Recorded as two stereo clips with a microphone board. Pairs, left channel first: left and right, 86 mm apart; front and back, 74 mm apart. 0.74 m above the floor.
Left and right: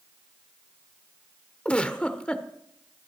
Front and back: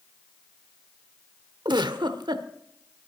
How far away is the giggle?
About 1.0 m.